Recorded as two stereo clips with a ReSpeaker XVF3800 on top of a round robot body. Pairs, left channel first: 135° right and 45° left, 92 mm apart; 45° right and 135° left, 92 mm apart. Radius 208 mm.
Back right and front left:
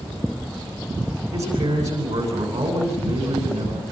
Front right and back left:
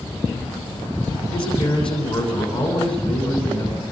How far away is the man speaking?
About 9.5 m.